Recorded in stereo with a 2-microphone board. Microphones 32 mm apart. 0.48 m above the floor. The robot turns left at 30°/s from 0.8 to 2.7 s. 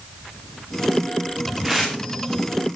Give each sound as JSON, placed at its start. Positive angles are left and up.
{"t": 1.6, "sound": "tearing paper", "side_deg": -15, "distance_m": 8.5}